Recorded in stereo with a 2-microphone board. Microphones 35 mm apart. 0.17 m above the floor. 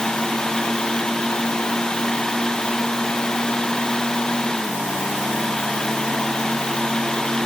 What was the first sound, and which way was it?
Only background noise.